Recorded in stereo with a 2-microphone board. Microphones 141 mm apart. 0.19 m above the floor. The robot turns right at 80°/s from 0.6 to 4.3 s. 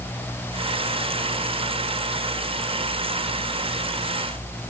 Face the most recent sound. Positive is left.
No sound to turn to.